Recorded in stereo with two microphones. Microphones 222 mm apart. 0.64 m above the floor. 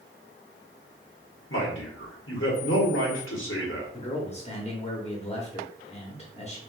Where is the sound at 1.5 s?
65° left (ahead or behind), 1.3 m.